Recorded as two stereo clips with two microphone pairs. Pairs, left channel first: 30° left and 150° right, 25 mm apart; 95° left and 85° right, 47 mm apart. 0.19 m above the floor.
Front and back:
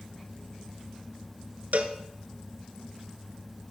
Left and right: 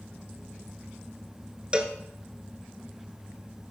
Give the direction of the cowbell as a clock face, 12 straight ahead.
5 o'clock.